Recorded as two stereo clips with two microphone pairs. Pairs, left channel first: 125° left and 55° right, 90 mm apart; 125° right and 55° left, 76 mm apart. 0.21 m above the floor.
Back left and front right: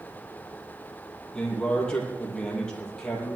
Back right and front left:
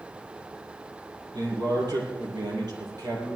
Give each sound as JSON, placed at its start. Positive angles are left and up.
{"t": 1.3, "sound": "a man speaking", "azimuth_deg": 45, "distance_m": 6.0}